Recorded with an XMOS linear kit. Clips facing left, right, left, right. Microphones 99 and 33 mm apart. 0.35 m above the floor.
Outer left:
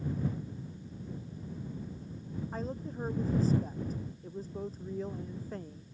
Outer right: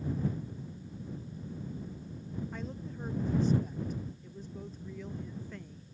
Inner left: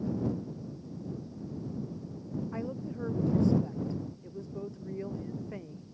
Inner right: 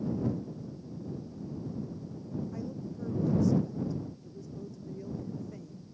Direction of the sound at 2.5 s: 35° left (ahead or behind).